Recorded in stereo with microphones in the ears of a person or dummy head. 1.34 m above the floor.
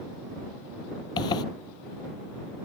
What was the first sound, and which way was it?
A zipper, 25° left (ahead or behind).